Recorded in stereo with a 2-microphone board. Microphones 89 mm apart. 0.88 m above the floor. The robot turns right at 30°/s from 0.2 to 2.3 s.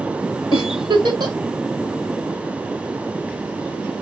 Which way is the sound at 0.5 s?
70° right (ahead or behind).